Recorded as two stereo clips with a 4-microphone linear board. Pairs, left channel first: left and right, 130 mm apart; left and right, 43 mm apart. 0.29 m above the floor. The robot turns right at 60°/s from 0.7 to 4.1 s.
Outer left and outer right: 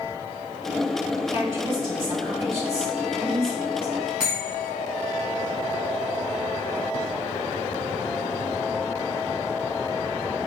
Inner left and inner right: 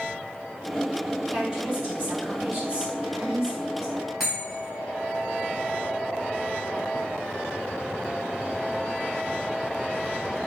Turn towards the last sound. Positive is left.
turn(degrees=-5)  # may be behind; listen again after turning